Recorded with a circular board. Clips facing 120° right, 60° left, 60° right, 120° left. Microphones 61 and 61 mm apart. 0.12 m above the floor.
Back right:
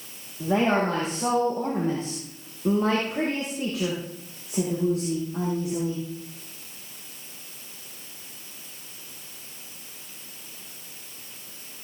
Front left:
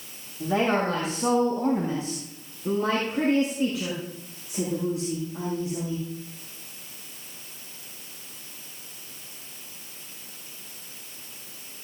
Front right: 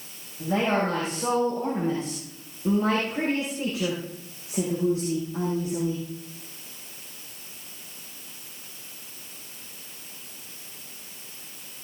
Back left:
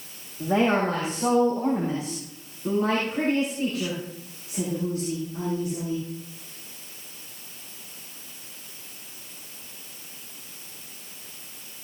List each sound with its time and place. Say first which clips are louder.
0.4 s a woman speaking: back right 1 dB, back left 2 dB; 175° right, 6 m; by 6.0 s 115° right, 7.5 m